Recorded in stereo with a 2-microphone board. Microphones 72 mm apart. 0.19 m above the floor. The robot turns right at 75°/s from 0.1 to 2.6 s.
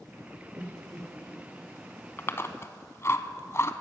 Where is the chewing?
30° left (ahead or behind), 0.8 m; by 3.7 s 40° left (ahead or behind), 0.8 m.